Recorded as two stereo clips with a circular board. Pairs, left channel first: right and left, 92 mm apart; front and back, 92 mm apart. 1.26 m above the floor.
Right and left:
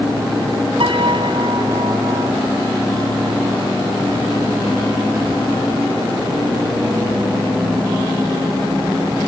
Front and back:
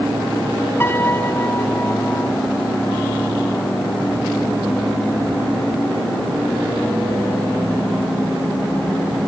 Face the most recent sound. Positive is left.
turn(degrees=65)